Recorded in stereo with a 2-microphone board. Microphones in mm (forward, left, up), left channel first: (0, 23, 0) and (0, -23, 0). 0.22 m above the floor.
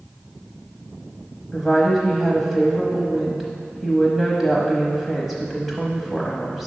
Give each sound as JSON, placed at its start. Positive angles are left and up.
{"t": 1.5, "sound": "a woman speaking", "side_deg": -5, "distance_m": 0.9}